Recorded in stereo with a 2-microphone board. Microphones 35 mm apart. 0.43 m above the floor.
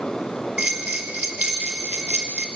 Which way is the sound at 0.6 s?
50° right (ahead or behind).